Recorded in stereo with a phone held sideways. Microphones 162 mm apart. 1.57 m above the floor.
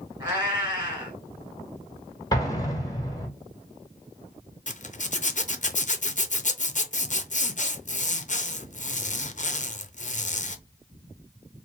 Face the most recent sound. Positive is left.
turn(degrees=50)  # may be behind; listen again after turning